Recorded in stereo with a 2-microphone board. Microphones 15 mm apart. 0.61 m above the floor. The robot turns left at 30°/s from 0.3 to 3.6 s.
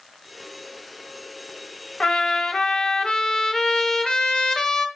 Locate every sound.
2.0 s a trumpet: 100° left, 0.7 m; by 4.9 s 50° left, 0.7 m